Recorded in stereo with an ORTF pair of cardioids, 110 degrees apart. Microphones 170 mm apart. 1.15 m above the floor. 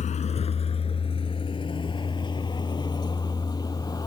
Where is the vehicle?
45° left; by 4.1 s 25° left.